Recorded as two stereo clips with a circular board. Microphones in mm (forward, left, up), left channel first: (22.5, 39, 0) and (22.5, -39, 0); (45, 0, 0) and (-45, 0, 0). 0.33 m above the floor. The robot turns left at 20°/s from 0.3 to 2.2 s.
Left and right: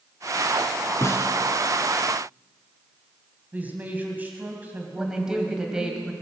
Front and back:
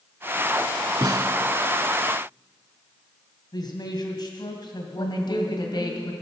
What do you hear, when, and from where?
1.0 s a snare drum: 140° left, 0.7 m; by 1.4 s 135° left, 0.7 m
3.5 s a man speaking: 25° right, 2 m
5.0 s a woman speaking: 10° right, 1.8 m